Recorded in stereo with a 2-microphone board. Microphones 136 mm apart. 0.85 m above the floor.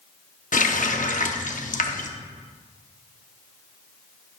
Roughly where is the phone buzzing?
I don't hear a phone buzzing.